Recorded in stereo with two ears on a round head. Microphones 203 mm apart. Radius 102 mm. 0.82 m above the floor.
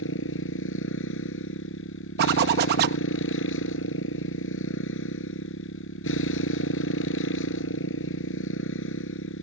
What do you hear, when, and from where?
0.0 s a motorcycle: 60° left (ahead or behind)
2.2 s a zipper: 45° right (ahead or behind)